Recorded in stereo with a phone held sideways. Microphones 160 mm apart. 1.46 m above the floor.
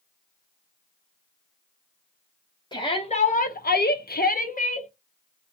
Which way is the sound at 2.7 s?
25° left (ahead or behind).